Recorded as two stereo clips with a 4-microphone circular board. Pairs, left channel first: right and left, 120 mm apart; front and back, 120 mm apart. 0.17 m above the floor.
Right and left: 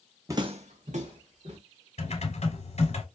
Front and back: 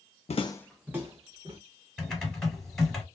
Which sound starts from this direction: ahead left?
Footsteps, at 0.3 s.